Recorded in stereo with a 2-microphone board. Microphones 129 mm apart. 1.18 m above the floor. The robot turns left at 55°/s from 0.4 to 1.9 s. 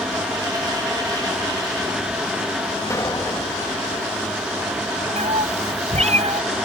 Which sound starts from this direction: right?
A cat meowing, at 5.2 s.